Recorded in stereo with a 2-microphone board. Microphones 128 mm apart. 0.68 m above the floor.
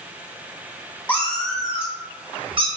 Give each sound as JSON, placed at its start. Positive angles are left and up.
{"t": 1.1, "sound": "a cat meowing", "side_deg": 15, "distance_m": 1.0}